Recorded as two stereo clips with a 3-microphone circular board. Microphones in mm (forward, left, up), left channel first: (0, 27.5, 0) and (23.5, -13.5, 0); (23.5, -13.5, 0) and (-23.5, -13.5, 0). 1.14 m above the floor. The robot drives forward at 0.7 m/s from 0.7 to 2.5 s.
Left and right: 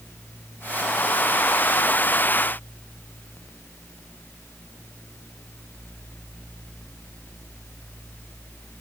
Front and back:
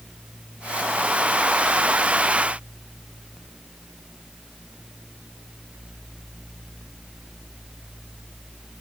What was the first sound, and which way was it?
Only background noise.